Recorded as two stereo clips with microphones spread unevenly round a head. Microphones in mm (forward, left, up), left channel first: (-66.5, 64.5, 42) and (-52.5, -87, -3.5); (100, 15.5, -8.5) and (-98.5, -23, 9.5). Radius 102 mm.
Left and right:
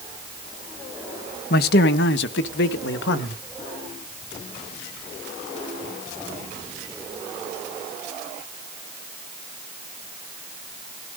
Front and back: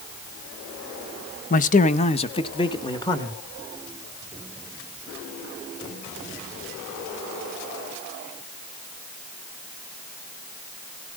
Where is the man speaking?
55° left, 1.0 m; by 3.4 s 85° left, 1.9 m.